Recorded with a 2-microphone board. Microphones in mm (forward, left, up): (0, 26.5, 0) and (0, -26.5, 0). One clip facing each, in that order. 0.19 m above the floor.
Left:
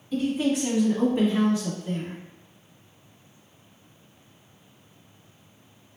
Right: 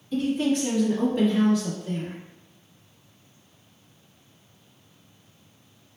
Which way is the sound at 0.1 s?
Centre (ahead or behind).